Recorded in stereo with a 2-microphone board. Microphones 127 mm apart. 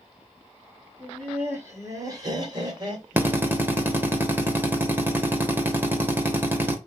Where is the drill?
15° right (ahead or behind), 0.9 m.